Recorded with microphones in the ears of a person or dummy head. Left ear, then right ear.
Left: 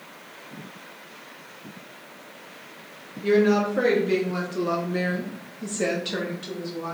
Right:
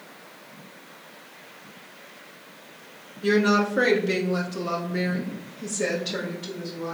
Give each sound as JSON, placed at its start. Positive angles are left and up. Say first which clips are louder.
{"t": 3.2, "sound": "a woman speaking", "louder": "left 1 dB", "side_deg": -45, "distance_m": 0.9}